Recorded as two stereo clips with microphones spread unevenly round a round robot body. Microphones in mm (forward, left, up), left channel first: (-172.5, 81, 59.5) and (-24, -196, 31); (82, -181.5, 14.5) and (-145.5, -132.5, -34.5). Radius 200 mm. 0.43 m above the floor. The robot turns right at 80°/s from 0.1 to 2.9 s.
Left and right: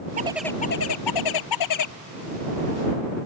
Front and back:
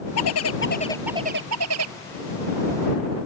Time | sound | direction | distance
0.2 | a bird | 10° left | ?